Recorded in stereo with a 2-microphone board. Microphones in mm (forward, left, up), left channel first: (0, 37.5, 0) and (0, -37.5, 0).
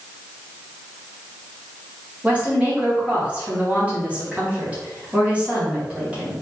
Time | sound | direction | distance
2.2 | a woman speaking | 20° right (ahead or behind) | 1.8 m